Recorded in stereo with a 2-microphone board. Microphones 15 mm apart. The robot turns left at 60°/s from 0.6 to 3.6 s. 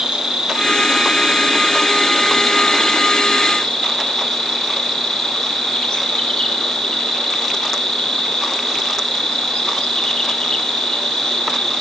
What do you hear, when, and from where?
0.0 s an insect: 85° right, 0.9 m; by 11.8 s 95° left, 0.9 m